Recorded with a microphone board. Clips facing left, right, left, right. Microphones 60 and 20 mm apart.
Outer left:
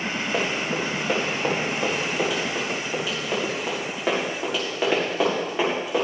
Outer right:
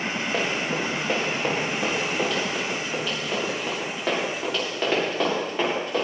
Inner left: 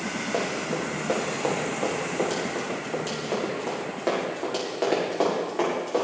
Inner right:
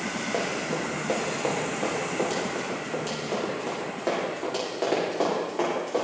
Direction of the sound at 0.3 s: 5° left (ahead or behind).